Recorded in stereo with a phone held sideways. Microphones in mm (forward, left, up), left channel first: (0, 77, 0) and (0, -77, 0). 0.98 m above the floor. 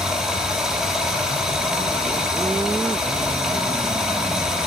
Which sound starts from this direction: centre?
Running water, at 0.0 s.